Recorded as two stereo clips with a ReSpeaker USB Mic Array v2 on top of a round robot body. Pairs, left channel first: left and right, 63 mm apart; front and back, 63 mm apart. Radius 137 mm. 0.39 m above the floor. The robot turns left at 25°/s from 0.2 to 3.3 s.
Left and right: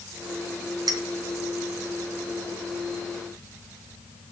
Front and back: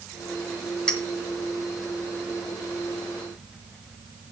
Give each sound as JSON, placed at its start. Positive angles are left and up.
{"t": 0.9, "sound": "a clink", "azimuth_deg": -80, "distance_m": 2.5}